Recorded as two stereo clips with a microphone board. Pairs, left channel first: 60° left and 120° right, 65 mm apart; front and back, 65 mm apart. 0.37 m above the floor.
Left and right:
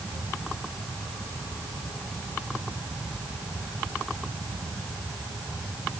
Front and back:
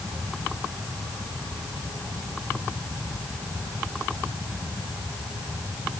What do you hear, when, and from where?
Only background noise.